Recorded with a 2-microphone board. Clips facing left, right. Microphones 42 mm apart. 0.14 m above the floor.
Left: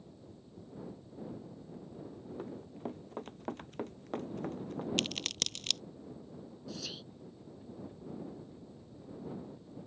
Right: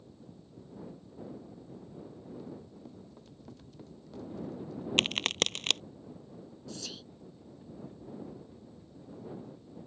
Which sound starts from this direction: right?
A crack, at 5.0 s.